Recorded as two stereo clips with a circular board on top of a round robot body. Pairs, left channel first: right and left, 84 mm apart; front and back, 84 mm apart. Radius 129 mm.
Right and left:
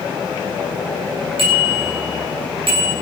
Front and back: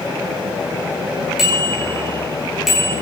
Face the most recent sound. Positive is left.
turn(degrees=95)